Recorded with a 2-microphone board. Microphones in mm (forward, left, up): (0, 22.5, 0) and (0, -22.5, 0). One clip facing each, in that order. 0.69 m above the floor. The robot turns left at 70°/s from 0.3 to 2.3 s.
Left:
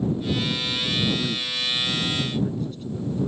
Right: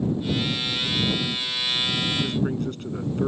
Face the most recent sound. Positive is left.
turn(degrees=-55)